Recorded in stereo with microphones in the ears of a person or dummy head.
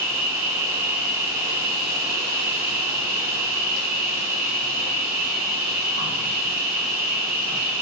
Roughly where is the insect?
Right.